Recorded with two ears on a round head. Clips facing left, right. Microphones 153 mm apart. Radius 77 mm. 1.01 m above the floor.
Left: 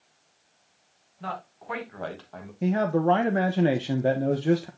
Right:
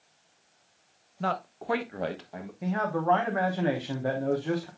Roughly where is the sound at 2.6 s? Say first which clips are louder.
Left 5 dB; left.